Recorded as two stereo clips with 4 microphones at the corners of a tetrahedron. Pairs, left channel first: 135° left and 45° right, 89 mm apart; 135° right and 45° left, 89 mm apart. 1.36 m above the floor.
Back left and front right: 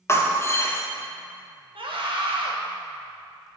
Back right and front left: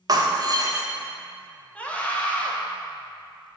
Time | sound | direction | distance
0.1 | breaking glass | 80° left | 0.8 m
1.8 | a scream | 60° right | 1.3 m